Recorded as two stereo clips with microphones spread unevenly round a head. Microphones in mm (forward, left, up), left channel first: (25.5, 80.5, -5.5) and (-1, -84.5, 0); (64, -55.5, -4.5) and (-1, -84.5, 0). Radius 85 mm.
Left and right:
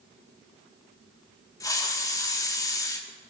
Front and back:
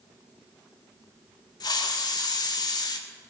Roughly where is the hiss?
Ahead.